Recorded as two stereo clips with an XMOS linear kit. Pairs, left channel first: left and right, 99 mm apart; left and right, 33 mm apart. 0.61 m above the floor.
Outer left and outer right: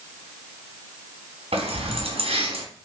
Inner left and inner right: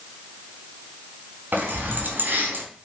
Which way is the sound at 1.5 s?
85° right.